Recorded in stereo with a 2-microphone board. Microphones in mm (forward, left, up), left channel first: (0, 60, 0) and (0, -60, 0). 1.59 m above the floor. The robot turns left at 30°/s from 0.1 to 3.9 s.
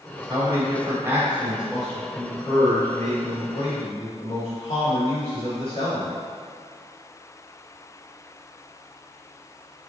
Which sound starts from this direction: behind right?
A man speaking, at 0.3 s.